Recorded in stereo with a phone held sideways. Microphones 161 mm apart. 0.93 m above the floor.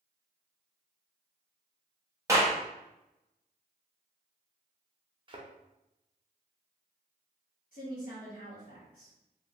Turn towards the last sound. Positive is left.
turn(degrees=65)  # may be behind; listen again after turning